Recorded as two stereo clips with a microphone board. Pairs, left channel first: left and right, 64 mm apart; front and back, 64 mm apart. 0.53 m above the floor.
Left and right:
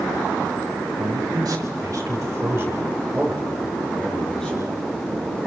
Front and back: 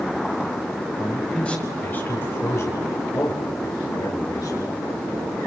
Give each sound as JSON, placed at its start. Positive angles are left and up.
{"t": 1.0, "sound": "a man speaking", "azimuth_deg": -80, "distance_m": 4.0}